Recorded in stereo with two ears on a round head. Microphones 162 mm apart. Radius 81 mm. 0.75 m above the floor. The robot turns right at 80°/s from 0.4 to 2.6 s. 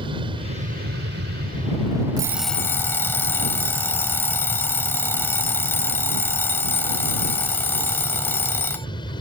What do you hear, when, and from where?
0.0 s an aircraft: 150° right; by 9.2 s 30° left
2.2 s an alarm clock: 25° right; by 8.9 s 10° left